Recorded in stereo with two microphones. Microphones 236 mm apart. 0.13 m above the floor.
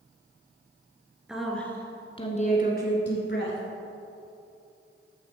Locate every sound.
1.3 s a woman speaking: 5° right (ahead or behind), 2 m; by 3.6 s 50° left (ahead or behind), 2.5 m